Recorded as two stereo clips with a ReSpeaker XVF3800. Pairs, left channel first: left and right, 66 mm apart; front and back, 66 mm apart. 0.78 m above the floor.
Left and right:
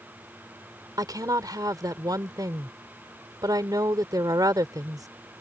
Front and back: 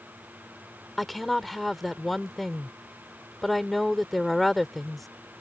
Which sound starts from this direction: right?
A woman speaking, at 1.0 s.